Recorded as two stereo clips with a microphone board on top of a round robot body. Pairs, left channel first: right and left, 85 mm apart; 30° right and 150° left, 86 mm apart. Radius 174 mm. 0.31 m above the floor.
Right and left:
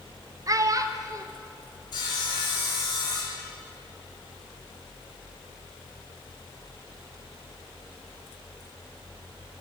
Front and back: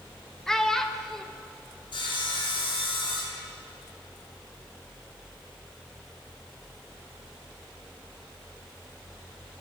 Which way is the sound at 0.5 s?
55° left.